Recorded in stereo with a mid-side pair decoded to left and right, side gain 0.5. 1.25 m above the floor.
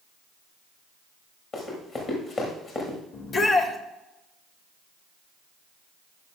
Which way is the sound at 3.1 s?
45° left.